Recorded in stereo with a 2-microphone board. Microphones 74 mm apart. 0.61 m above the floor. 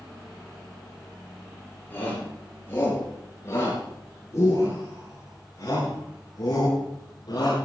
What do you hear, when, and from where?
1.9 s a shout: 30° left (ahead or behind), 9.5 m; by 7.5 s 65° left (ahead or behind), 8 m